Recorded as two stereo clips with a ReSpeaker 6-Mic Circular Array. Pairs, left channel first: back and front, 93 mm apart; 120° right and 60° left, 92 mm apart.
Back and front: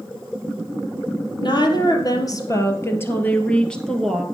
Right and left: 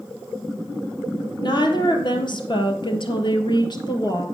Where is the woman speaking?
150° right, 2.5 m; by 4.2 s 85° right, 2 m.